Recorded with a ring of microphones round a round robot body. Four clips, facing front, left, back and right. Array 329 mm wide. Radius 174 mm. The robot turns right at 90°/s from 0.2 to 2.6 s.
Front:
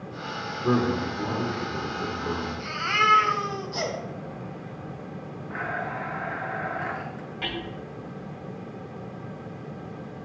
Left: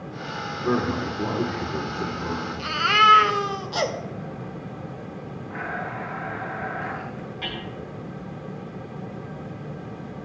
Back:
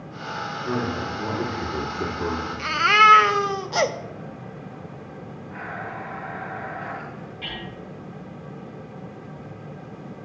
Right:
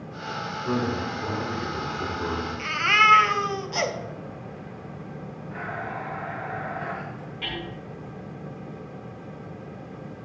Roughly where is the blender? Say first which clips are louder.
Left 2 dB, front 3 dB; ahead left.